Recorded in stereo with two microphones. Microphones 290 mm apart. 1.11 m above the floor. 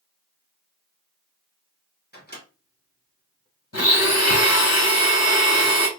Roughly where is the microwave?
Left.